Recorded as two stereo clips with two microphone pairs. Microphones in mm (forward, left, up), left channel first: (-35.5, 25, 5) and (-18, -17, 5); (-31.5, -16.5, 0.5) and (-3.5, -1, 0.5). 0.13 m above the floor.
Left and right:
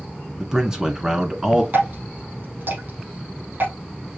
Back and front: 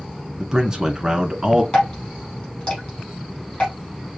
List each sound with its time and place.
0.4 s a man speaking: 10° right, 1.4 m
1.7 s dripping: 95° right, 4 m